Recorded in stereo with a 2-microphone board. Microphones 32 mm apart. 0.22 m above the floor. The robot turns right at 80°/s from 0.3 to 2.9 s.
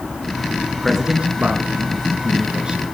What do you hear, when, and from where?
0.8 s a man speaking: centre (ahead or behind), 3.5 m; by 2.8 s 20° right (ahead or behind), 3.5 m